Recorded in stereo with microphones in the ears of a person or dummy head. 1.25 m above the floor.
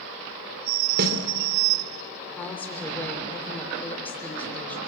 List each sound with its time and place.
1.0 s a snare drum: 55° right (ahead or behind), 3 m
2.4 s a woman speaking: 5° left (ahead or behind), 3.5 m